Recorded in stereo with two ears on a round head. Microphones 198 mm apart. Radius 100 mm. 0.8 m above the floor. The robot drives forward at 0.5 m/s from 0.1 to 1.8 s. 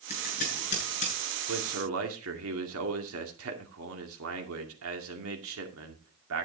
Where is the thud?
I don't hear a thud.